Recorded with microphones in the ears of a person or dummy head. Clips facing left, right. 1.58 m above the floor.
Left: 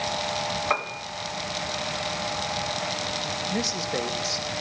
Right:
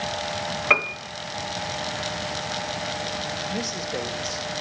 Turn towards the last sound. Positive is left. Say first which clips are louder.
# left 3 dB
turn(degrees=10)  # may be behind; listen again after turning